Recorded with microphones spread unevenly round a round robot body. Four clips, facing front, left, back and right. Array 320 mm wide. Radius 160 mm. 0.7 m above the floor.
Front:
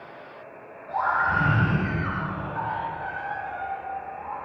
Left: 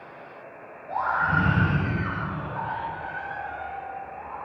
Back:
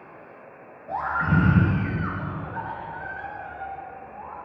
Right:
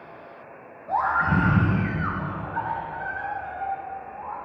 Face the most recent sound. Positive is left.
turn(degrees=-145)